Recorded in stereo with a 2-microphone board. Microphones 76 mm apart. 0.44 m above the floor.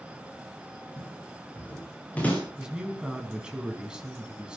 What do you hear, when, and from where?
1.0 s footsteps: 25° left (ahead or behind), 9.5 m; by 2.4 s 20° left (ahead or behind), 10.5 m
2.6 s a man speaking: 10° right (ahead or behind), 4.5 m